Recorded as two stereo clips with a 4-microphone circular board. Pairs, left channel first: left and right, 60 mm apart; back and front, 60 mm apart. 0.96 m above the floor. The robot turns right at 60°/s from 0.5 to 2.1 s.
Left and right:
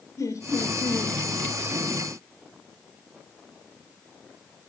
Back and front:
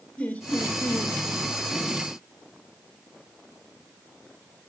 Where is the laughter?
115° left, 3 m; by 1.1 s 150° left, 3 m.